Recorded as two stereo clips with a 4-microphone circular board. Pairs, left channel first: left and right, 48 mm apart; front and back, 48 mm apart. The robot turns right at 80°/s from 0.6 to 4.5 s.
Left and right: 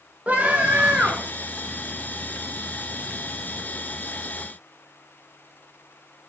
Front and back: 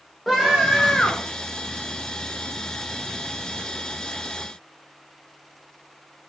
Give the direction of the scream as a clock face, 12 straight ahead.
3 o'clock.